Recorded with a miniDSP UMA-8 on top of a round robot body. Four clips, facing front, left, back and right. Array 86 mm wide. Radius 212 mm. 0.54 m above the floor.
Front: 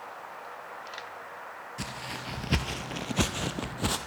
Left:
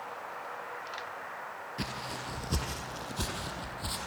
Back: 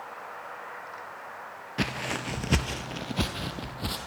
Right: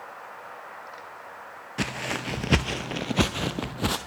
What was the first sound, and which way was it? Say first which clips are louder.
Footsteps: right 9 dB, back 9 dB; 135° right.